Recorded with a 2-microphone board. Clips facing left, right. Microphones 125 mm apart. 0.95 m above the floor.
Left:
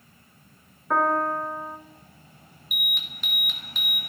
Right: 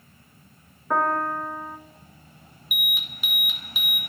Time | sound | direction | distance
0.9 | a piano | centre (ahead or behind) | 0.8 m
2.7 | an alarm | 5° right (ahead or behind) | 1.4 m